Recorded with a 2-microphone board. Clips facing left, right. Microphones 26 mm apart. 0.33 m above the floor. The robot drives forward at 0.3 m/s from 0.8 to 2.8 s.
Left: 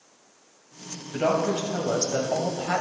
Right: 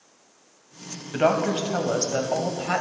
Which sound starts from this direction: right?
A woman speaking, at 1.1 s.